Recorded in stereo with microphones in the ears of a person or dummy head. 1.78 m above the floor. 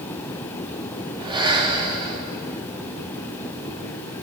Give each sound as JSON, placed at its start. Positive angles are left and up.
{"t": 1.2, "sound": "breathing", "side_deg": -25, "distance_m": 1.2}